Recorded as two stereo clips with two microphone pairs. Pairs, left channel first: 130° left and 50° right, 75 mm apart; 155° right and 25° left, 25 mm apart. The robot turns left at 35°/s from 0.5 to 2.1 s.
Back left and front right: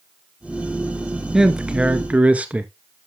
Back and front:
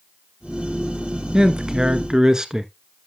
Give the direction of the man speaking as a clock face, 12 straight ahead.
11 o'clock.